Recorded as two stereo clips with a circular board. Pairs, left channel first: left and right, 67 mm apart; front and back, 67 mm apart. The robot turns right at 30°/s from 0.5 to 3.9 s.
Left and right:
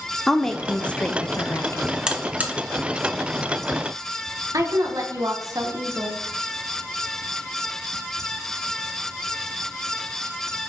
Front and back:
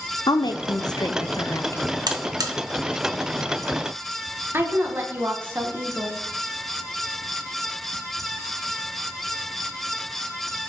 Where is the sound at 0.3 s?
5° left, 0.9 m; by 1.9 s 45° left, 0.9 m.